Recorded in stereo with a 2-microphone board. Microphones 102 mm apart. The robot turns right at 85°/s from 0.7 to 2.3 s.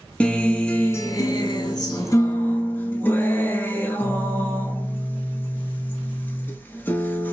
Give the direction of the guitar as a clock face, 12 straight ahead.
11 o'clock.